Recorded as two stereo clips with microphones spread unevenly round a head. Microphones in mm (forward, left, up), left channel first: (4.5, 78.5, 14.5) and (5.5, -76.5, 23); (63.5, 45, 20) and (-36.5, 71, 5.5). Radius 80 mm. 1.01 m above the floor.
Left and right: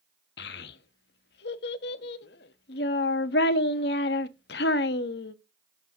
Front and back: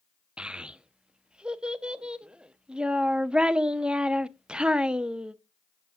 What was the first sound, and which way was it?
A child speaking, 80° left.